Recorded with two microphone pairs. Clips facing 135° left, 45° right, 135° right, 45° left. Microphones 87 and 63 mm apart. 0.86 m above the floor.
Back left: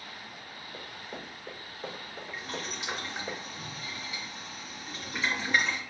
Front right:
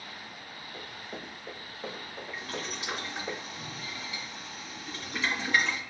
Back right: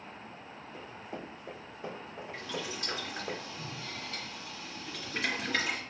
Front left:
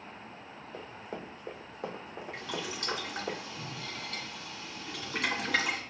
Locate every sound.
0.7 s running footsteps: 55° left, 1.8 m; by 3.3 s 30° left, 2.5 m
2.3 s boiling: 50° left, 1.9 m